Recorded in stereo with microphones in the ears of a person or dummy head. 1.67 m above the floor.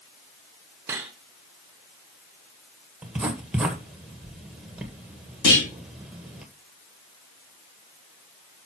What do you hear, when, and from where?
0.9 s cutlery clinking: 5° right (ahead or behind), 0.9 m
3.0 s writing: 5° right (ahead or behind), 1.5 m
5.4 s a clunk: 60° left (ahead or behind), 4.5 m